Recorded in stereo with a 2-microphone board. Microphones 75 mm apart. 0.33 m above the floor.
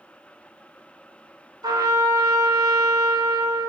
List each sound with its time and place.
1.6 s a trumpet: 60° right (ahead or behind), 1.3 m